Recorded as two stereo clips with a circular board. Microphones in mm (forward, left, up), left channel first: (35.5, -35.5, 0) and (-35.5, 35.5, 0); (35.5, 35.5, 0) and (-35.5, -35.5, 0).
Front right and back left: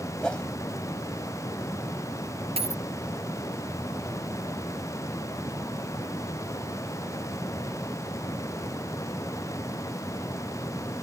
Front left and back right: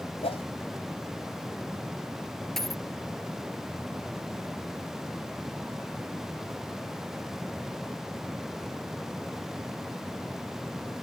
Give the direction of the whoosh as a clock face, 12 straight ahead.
11 o'clock.